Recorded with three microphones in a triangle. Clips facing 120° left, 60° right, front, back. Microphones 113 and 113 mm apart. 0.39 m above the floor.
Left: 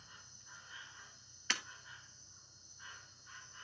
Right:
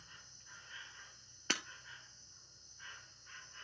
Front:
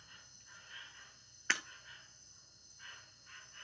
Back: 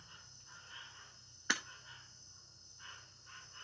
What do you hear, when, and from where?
0.0 s an insect: 175° right, 1.9 m
1.5 s breaking glass: 105° right, 0.7 m